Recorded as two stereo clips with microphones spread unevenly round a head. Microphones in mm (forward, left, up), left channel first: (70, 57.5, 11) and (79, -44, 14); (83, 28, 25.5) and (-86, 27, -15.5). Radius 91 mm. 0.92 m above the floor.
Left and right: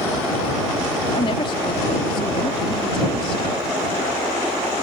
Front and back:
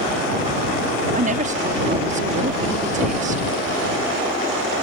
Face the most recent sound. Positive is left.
turn(degrees=145)